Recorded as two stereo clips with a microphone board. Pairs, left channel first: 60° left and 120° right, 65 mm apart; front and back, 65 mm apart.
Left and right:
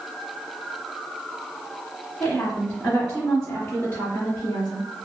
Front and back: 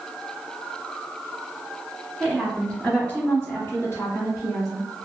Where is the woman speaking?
95° left, 1.1 m; by 4.9 s straight ahead, 1.7 m.